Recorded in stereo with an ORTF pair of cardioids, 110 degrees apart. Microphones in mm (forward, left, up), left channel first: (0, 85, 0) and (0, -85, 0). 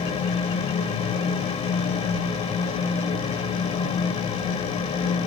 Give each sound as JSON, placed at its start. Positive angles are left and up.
{"t": 0.0, "sound": "a fan", "azimuth_deg": 40, "distance_m": 1.3}